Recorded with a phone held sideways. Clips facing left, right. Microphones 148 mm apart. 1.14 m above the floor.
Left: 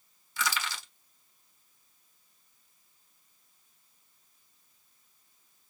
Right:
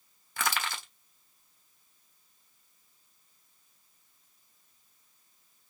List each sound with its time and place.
0.4 s crushing: 60° right (ahead or behind), 1.5 m